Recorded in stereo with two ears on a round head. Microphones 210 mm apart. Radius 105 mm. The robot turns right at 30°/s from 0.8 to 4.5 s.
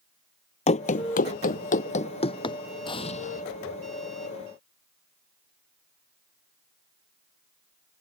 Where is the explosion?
20° left (ahead or behind); by 3.4 s 35° left (ahead or behind).